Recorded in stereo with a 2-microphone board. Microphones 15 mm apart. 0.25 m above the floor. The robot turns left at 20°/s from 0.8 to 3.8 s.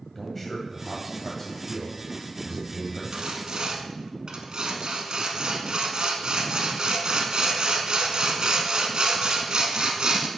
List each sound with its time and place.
0.1 s a man speaking: 15° left (ahead or behind), 1.3 m; by 3.0 s 20° left (ahead or behind), 1.3 m
3.1 s sawing: 60° right (ahead or behind), 0.9 m; by 10.3 s 65° right (ahead or behind), 0.9 m